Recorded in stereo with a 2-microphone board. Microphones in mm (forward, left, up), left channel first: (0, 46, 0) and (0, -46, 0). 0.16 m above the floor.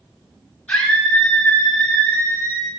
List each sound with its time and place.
0.7 s a scream: 10° left (ahead or behind), 6.5 m; by 2.7 s 20° left (ahead or behind), 5.5 m